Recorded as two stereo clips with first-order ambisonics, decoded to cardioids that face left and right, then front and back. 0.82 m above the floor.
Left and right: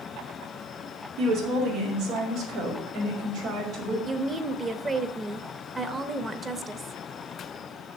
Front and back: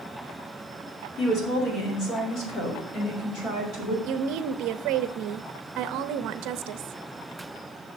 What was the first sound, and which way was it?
A woman speaking, 55° right.